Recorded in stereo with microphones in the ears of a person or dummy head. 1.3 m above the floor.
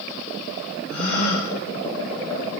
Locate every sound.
0.9 s a gasp: 60° left (ahead or behind), 7 m